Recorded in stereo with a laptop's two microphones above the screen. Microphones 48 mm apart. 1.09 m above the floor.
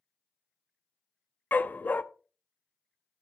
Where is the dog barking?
40° left (ahead or behind), 0.5 m.